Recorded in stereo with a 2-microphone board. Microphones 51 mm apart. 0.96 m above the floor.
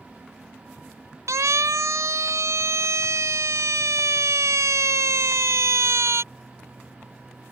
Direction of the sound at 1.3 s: 75° right (ahead or behind).